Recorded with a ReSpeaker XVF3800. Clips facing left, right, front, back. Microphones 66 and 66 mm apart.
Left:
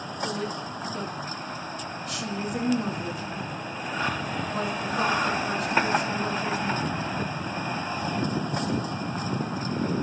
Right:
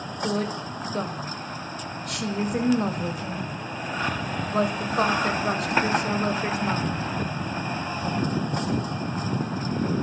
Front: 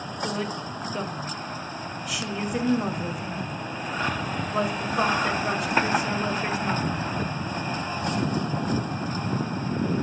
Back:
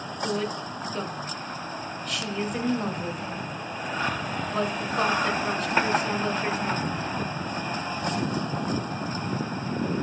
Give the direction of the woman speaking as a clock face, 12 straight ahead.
3 o'clock.